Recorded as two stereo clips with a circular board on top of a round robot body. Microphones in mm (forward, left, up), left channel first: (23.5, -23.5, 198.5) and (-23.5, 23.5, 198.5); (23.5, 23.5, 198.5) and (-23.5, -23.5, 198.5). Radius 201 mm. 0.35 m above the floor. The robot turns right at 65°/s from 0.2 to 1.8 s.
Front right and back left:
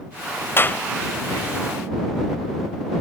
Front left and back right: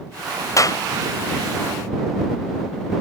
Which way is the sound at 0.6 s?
5° left.